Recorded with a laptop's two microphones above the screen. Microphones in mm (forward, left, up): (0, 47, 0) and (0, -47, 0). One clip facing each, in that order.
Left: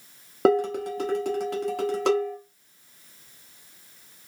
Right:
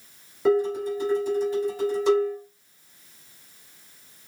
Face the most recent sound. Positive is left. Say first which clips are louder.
# even
turn(degrees=70)  # may be behind; listen again after turning